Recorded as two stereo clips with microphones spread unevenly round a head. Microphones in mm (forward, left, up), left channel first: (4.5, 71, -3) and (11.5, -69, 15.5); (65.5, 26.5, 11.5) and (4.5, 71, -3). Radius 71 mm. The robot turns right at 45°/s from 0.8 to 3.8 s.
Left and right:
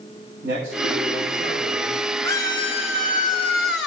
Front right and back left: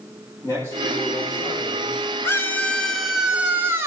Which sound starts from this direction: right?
A man speaking, at 0.4 s.